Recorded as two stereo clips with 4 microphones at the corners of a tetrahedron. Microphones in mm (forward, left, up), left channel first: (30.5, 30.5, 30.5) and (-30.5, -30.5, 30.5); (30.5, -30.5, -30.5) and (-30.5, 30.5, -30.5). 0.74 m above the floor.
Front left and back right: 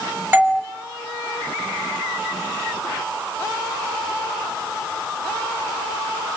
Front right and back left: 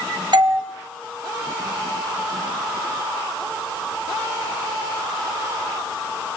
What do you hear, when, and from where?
0.3 s a doorbell: 160° left, 2 m